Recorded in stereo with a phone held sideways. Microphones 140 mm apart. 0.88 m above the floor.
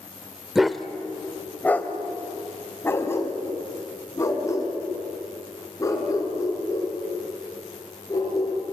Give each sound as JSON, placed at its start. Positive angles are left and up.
{"t": 0.6, "sound": "a dog barking", "side_deg": -5, "distance_m": 1.0}